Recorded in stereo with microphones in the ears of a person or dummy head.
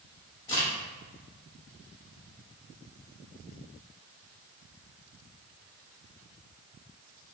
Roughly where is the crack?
Centre.